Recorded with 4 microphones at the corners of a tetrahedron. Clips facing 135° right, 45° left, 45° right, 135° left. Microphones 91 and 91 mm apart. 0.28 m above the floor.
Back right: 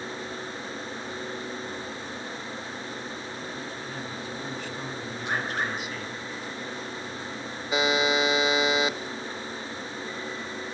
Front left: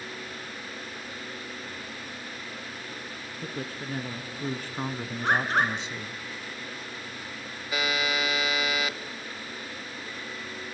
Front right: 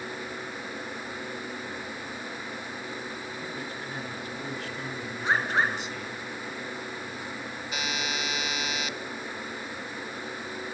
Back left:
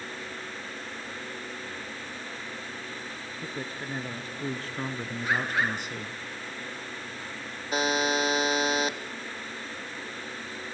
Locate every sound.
3.4 s a man speaking: 80° left, 3 m; by 6.2 s 110° left, 1.8 m
5.2 s a bird: 15° left, 4 m
7.7 s a buzzer: 165° left, 0.9 m